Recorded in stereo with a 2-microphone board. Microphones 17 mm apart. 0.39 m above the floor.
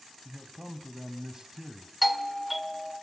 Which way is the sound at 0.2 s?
35° right (ahead or behind).